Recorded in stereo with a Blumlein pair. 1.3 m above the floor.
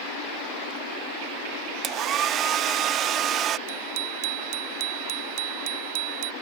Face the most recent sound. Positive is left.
turn(degrees=-45)